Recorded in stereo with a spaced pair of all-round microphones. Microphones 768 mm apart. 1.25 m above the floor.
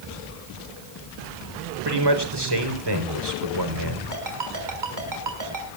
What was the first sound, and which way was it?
A man speaking, 30° right (ahead or behind).